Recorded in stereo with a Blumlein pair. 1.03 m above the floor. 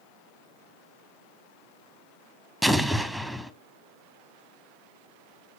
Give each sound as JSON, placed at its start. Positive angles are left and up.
{"t": 2.6, "sound": "an explosion", "azimuth_deg": 0, "distance_m": 1.1}